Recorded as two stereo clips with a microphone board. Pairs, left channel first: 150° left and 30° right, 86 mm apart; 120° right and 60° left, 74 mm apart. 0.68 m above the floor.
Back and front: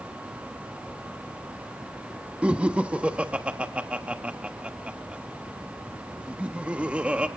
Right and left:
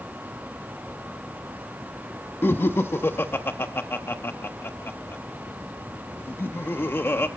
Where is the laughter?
95° right, 0.9 m.